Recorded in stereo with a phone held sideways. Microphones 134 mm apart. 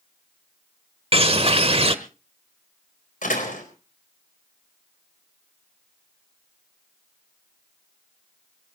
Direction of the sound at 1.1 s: 45° right (ahead or behind).